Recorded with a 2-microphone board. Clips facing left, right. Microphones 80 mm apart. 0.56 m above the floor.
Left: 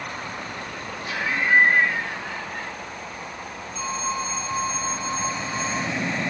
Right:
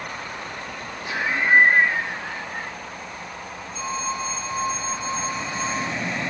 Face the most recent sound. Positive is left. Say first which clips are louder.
# even
turn(degrees=-10)  # may be behind; listen again after turning